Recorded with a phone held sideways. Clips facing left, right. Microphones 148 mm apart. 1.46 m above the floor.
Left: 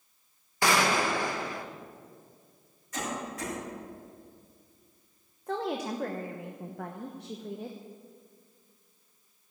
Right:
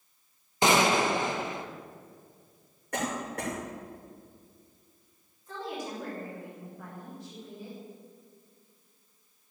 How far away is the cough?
About 6 m.